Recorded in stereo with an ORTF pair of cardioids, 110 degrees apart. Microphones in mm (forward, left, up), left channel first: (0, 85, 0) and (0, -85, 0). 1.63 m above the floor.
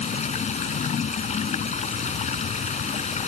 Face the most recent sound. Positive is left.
turn(degrees=45)